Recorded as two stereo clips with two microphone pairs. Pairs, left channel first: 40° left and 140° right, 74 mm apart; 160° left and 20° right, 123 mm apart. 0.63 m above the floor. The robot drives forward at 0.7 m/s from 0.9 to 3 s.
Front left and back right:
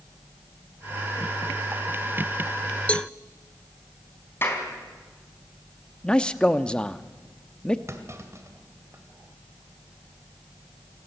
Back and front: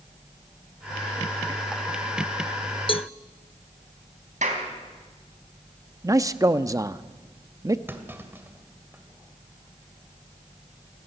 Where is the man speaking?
20° right, 0.7 m.